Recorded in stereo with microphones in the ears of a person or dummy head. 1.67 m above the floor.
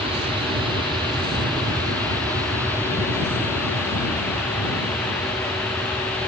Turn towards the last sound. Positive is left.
turn(degrees=10)  # may be behind; listen again after turning